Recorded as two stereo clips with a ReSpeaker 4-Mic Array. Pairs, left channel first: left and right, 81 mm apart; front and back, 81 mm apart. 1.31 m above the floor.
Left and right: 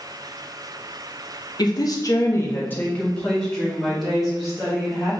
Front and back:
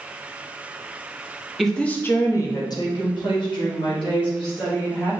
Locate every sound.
1.6 s a woman speaking: 90° left, 0.8 m; by 5.1 s 5° right, 2.5 m